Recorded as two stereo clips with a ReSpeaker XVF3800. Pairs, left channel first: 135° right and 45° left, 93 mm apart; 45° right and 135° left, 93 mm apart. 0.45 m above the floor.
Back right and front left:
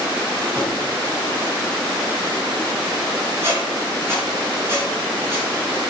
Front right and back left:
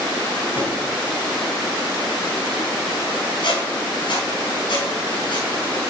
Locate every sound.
0.6 s a drawer: 60° right, 4.5 m
3.4 s a squeak: 20° right, 4 m